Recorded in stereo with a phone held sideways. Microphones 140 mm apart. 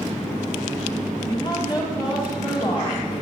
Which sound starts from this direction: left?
A woman speaking, at 1.3 s.